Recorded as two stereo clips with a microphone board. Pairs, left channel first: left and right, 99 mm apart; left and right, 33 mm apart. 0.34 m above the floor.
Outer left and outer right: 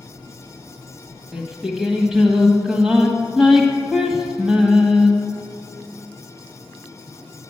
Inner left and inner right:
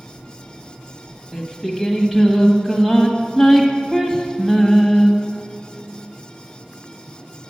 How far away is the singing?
About 1.6 m.